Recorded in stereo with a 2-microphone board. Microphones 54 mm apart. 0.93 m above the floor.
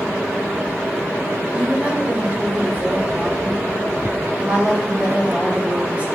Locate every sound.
1.5 s a woman speaking: 25° right (ahead or behind), 3 m